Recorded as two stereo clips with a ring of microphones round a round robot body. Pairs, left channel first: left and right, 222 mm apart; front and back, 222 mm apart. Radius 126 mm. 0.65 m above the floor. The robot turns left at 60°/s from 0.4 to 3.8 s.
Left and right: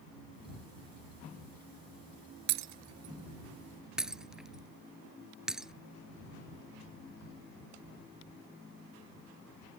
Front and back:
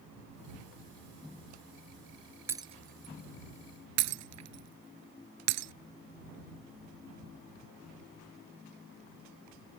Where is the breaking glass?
100° right; by 5.7 s 175° right.